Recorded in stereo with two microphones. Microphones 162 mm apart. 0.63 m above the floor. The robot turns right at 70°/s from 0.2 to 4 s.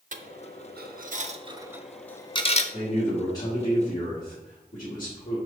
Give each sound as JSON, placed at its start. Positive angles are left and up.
{"t": 0.1, "sound": "a dropped coin", "side_deg": -55, "distance_m": 0.6}
{"t": 2.7, "sound": "a man speaking", "azimuth_deg": -15, "distance_m": 1.7}